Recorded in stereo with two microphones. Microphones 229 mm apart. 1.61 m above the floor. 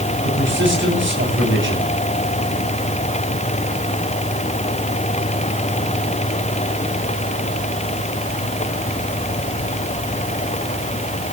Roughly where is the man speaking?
Right.